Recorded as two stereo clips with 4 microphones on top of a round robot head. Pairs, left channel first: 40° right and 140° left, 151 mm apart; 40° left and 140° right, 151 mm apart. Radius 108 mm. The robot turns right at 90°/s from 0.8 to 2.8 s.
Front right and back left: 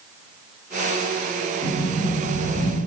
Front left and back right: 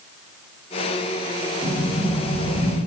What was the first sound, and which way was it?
A sliding door, 60° right.